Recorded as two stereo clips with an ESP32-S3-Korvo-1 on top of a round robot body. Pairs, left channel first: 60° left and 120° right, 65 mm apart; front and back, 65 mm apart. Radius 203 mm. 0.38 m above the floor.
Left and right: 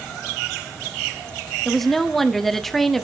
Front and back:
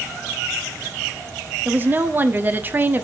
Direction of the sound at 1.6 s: 145° left.